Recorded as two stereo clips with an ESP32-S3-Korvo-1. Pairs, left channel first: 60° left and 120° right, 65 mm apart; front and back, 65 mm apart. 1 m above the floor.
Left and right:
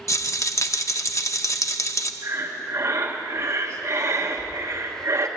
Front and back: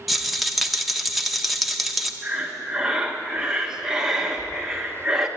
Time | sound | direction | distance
0.1 | a rattle | 95° left | 0.7 m
2.2 | breathing | 100° right | 1.1 m